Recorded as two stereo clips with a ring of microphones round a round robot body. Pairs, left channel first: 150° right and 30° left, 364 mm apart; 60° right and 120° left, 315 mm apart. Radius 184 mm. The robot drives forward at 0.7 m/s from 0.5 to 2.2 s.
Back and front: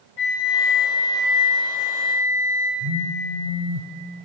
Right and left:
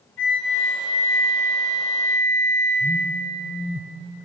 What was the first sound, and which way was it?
A flute, 120° right.